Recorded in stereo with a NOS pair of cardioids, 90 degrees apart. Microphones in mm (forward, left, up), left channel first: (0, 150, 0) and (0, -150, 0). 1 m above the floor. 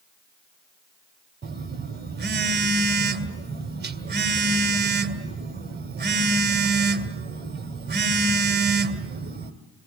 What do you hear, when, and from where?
1.4 s a phone buzzing: 35° right, 2.5 m